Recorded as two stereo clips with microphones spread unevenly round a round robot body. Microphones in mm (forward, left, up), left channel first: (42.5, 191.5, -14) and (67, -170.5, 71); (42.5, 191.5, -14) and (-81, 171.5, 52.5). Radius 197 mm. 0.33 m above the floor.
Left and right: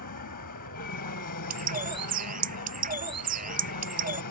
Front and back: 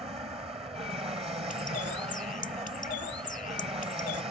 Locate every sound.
0.0 s an aircraft: 135° left
1.5 s a bird: 20° right